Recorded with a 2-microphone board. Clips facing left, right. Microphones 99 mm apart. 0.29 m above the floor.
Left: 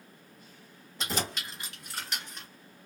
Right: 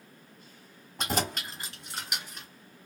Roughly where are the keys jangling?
Right.